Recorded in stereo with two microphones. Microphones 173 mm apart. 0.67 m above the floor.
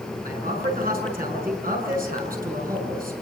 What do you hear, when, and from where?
0.2 s a man speaking: 60° right (ahead or behind), 6 m